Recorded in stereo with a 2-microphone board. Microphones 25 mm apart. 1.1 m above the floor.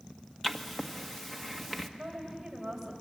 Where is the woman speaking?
10° right (ahead or behind), 6 m.